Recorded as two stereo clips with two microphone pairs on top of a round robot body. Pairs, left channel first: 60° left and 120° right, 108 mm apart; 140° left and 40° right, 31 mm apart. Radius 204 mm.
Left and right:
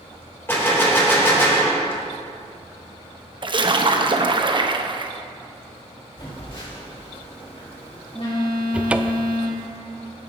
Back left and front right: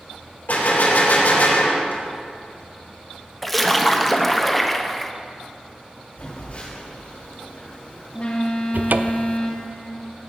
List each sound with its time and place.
0.5 s a gunshot: 125° left, 2.5 m
3.4 s a splash: 125° right, 1.1 m
6.2 s a phone buzzing: 100° left, 3.5 m
8.7 s a cupboard door: 35° right, 0.5 m